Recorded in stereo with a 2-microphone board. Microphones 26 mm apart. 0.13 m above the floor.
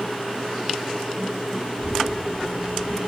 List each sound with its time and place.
1.7 s a child speaking: 15° right (ahead or behind), 8 m; by 3.0 s 10° right (ahead or behind), 8.5 m